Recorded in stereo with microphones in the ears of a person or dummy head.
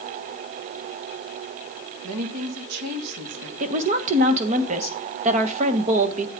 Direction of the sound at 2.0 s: 85° right.